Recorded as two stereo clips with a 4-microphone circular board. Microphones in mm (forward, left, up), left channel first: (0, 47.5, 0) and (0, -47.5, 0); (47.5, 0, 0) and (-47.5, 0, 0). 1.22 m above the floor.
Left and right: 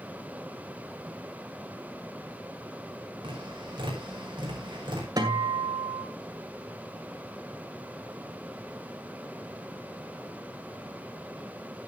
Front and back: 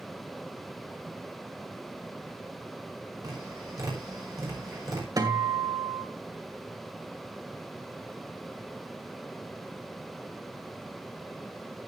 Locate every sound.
3.2 s tapping: 130° right, 5.5 m
5.2 s a guitar: 135° right, 2 m